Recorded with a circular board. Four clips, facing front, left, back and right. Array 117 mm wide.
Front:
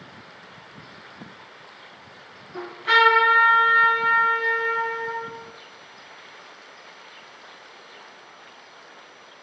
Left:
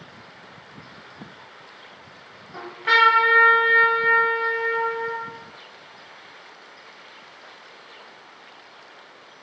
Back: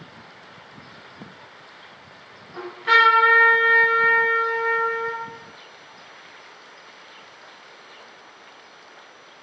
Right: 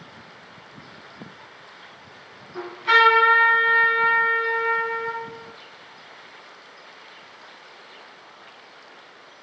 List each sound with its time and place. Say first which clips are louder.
2.5 s a trumpet: right 1 dB, back 1 dB; 95° left, 1.4 m